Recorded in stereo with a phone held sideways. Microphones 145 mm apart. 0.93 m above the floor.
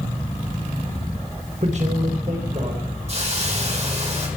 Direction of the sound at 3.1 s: 45° right (ahead or behind).